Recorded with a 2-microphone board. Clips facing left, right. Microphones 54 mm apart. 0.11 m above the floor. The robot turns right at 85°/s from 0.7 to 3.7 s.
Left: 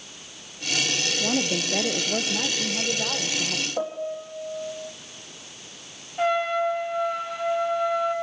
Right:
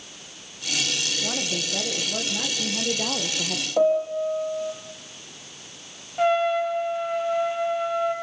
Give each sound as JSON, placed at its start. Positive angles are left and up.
{"t": 1.2, "sound": "a woman speaking", "azimuth_deg": 60, "distance_m": 3.0}
{"t": 3.8, "sound": "a piano", "side_deg": -40, "distance_m": 3.5}
{"t": 6.2, "sound": "a trumpet", "side_deg": -10, "distance_m": 4.5}